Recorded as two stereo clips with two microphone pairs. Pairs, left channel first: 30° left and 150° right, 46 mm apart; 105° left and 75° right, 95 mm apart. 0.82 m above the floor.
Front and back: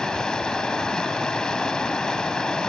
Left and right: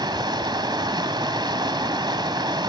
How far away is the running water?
About 1.8 m.